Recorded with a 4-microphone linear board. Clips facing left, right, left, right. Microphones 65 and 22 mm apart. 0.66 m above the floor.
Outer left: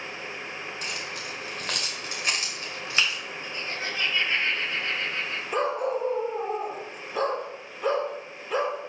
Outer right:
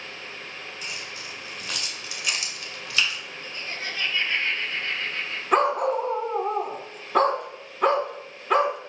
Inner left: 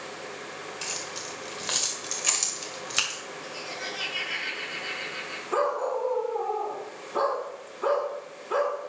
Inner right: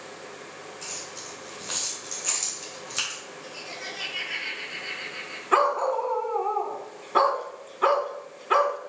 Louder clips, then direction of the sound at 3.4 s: Outer left 1 dB, inner left 2 dB; 20° left (ahead or behind).